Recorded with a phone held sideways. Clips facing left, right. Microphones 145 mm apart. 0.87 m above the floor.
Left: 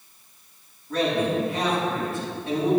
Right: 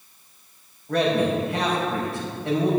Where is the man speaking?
75° right (ahead or behind), 4 m.